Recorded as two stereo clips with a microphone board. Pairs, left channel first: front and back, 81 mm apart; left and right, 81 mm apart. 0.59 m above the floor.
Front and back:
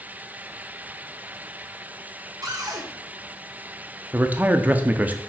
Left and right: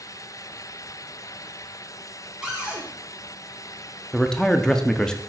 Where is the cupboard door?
170° right, 1.8 m.